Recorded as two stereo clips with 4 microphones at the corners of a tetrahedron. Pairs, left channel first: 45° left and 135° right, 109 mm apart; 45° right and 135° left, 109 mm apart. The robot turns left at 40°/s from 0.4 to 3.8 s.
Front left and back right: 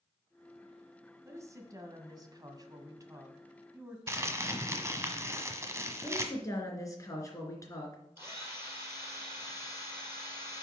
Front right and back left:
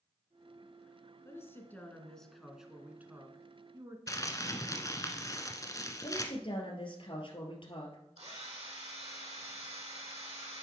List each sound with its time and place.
1.2 s a woman speaking: 90° right, 1.5 m; by 4.0 s 170° left, 1.5 m
4.1 s crumpling: 85° right, 1.3 m
6.0 s a woman speaking: 15° right, 3 m
8.2 s a drill: 160° left, 4.5 m